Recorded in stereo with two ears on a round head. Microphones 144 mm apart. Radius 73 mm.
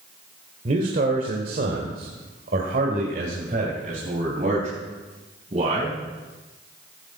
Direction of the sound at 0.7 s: 50° right (ahead or behind).